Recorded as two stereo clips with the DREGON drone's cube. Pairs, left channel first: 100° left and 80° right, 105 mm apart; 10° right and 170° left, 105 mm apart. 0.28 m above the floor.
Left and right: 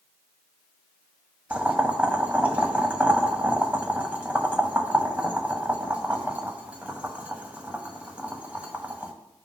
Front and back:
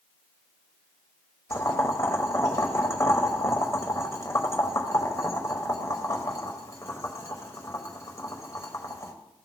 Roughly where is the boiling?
Ahead.